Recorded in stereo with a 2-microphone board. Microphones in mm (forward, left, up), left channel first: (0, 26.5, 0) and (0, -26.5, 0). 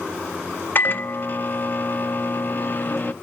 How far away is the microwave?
About 0.7 m.